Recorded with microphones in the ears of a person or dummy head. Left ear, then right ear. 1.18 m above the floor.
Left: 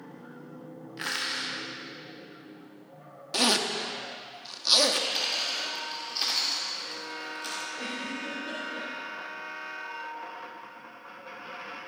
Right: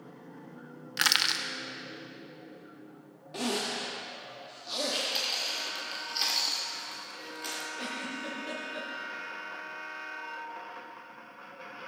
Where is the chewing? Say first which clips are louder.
Left 2 dB; 5° right (ahead or behind), 1.4 m.